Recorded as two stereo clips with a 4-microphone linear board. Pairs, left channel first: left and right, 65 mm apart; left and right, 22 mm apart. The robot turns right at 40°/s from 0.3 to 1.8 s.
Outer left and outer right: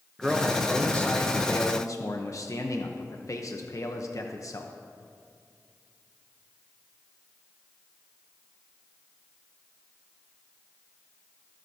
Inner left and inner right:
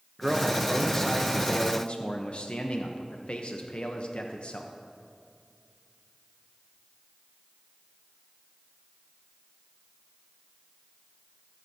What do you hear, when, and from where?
0.2 s a man speaking: 5° right, 0.9 m; by 4.7 s 55° left, 0.9 m